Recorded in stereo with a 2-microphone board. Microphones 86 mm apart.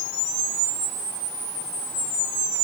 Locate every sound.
Only background noise.